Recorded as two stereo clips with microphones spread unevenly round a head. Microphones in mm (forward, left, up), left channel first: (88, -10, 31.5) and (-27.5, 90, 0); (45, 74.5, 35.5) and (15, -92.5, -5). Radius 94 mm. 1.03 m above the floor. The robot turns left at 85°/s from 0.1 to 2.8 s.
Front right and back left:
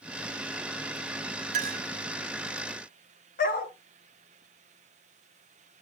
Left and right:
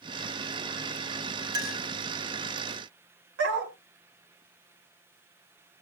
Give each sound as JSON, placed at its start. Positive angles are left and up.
{"t": 1.5, "sound": "a clink", "azimuth_deg": -165, "distance_m": 0.9}
{"t": 3.4, "sound": "a dog barking", "azimuth_deg": -85, "distance_m": 2.0}